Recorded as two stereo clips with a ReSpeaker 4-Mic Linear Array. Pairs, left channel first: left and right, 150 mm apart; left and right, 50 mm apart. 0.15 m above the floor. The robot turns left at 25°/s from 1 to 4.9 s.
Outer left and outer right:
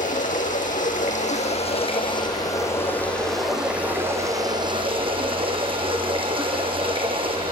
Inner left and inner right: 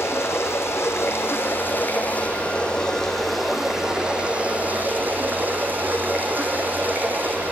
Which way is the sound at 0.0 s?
60° left.